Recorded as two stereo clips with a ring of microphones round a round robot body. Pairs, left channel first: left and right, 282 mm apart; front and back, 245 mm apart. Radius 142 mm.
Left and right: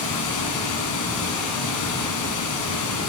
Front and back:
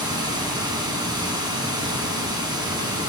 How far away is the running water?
About 1.7 m.